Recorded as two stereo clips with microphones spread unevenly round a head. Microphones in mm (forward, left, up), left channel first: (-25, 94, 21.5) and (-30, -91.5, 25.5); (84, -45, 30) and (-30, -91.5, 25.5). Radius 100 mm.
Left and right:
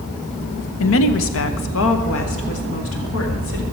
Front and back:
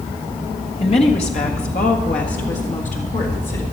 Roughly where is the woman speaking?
Left.